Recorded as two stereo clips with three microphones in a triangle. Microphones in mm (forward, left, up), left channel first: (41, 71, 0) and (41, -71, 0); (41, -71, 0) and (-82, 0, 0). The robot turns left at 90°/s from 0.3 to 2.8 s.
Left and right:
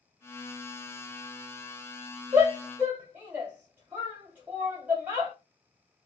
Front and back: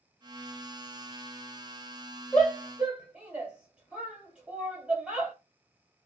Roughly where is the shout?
Right.